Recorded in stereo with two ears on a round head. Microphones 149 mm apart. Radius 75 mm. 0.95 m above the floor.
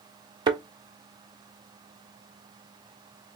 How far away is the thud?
About 0.7 m.